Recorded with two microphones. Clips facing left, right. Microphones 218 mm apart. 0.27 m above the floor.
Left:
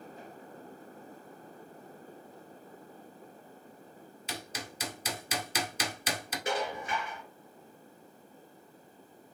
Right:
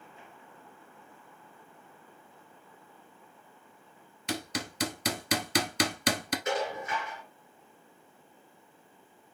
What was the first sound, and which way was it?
Hammering, 75° right (ahead or behind).